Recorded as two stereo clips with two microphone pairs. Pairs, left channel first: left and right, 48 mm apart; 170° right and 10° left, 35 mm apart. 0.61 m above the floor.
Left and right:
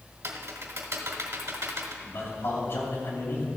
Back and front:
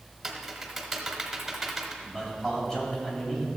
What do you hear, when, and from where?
0.2 s typing on a keyboard: 75° right, 1.2 m
2.0 s a man speaking: 115° left, 3 m